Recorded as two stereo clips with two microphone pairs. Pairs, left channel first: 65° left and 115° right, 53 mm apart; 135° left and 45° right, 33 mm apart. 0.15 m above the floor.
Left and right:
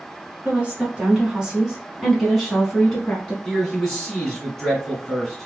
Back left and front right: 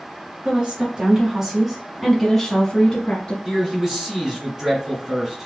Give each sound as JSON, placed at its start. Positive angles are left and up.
{"t": 0.5, "sound": "a woman speaking", "azimuth_deg": -70, "distance_m": 1.6}
{"t": 3.5, "sound": "a man speaking", "azimuth_deg": -10, "distance_m": 1.7}